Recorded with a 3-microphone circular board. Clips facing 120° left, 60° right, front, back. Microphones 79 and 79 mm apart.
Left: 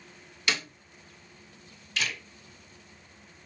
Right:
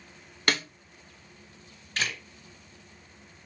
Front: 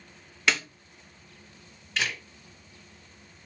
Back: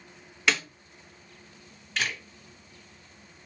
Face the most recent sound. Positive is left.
turn(degrees=-85)